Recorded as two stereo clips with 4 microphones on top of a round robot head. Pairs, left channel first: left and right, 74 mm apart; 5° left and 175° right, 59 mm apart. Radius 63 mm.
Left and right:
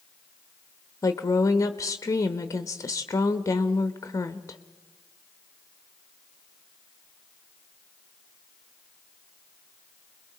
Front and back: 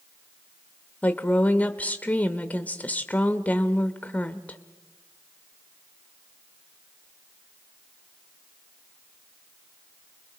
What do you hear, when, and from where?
1.0 s a woman speaking: 65° left, 0.9 m